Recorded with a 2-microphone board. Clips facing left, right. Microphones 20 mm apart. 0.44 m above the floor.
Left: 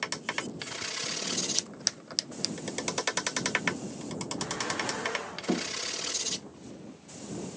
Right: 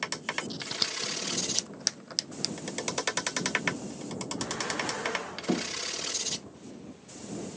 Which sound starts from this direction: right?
Scissors, at 0.5 s.